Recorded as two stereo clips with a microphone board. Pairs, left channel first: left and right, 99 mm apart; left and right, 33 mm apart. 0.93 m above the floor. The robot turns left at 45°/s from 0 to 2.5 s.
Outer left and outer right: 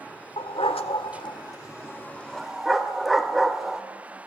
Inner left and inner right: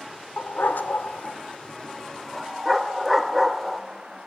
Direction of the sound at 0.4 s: 75° left (ahead or behind).